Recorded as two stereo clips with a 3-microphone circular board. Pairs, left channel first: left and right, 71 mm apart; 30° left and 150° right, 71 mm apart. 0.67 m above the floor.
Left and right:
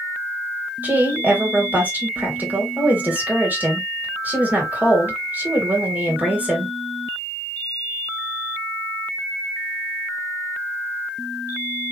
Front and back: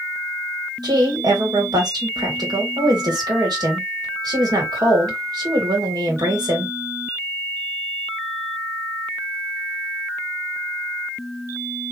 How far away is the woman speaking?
About 1.9 m.